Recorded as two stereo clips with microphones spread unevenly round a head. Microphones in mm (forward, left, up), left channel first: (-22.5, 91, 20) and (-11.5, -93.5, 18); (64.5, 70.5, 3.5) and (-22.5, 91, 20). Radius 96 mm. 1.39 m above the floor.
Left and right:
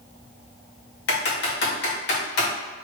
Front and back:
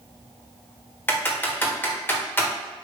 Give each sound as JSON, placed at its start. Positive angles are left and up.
{"t": 1.1, "sound": "typing on a keyboard", "azimuth_deg": 55, "distance_m": 1.4}